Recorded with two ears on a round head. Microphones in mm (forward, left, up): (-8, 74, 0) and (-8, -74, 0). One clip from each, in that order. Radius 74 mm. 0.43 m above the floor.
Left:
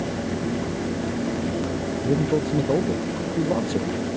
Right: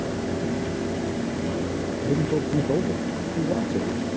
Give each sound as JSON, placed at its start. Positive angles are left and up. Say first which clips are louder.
{"t": 2.0, "sound": "a man speaking", "louder": "left 2 dB", "side_deg": 60}